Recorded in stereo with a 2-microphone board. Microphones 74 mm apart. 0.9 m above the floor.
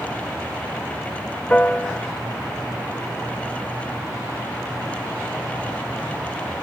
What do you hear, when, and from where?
1.5 s a piano: 15° left (ahead or behind), 0.5 m